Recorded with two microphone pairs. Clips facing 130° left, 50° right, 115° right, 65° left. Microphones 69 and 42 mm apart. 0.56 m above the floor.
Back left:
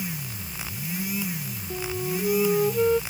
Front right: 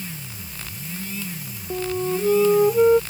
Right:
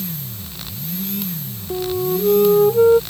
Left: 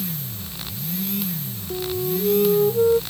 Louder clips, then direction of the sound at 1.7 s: Front right 6 dB, right 5 dB; 115° right.